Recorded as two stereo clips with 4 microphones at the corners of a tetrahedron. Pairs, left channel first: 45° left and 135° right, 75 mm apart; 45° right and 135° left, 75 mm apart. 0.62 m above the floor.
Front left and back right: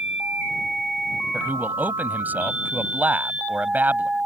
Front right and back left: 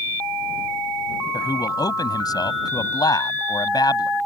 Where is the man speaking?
70° right.